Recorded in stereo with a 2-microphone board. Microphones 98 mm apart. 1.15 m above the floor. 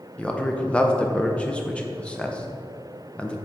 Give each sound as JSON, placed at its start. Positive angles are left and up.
{"t": 0.2, "sound": "a man speaking", "side_deg": 10, "distance_m": 0.6}